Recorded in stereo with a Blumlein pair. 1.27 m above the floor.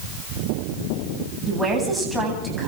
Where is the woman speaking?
10° right, 9 m.